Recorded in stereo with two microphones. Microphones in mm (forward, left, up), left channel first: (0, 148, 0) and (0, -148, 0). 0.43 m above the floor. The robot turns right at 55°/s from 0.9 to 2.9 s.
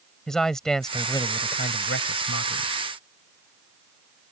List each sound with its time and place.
0.3 s a man speaking: straight ahead; by 2.7 s 105° left